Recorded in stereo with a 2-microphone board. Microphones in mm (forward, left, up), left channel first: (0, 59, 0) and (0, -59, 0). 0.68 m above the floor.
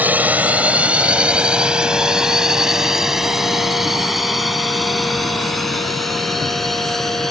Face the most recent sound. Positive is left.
turn(degrees=0)  # may be behind; listen again after turning